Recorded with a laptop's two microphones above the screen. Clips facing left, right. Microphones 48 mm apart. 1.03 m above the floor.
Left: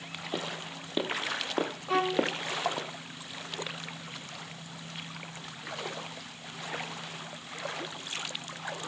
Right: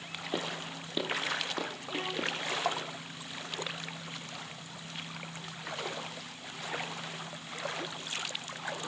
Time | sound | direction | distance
0.3 | footsteps | 5° right (ahead or behind) | 1.8 m
1.9 | a violin | 80° left | 2 m